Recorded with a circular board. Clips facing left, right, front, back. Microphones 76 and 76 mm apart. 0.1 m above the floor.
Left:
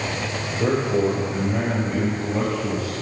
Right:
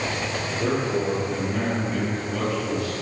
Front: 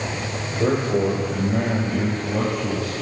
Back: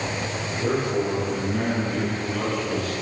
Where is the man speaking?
5° left, 3.5 m; by 2.9 s 35° left, 2.0 m.